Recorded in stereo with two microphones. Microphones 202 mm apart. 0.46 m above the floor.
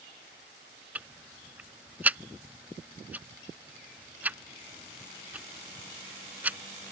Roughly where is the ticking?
Centre.